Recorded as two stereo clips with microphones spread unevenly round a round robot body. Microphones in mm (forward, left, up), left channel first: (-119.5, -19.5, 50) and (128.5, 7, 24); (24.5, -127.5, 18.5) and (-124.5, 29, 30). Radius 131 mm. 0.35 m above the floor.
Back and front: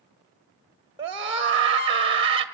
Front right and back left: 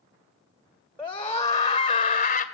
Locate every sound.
1.0 s a scream: 25° left, 1.5 m; by 2.5 s 35° right, 1.6 m